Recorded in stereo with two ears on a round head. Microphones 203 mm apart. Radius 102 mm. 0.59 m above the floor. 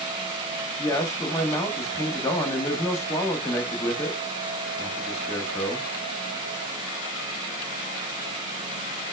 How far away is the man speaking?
About 0.6 m.